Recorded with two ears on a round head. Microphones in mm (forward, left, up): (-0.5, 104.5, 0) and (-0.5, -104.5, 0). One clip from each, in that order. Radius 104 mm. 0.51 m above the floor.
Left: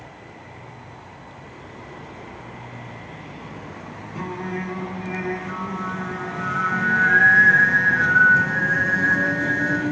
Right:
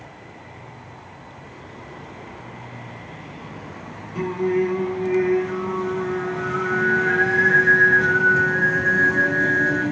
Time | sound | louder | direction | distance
4.2 | singing | right 8 dB | centre (ahead or behind) | 0.8 m